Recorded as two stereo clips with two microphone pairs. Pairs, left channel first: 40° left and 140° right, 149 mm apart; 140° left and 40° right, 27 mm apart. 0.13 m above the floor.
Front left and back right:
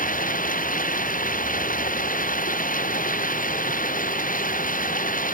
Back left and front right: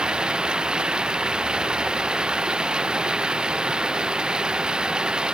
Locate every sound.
0.0 s running water: 20° left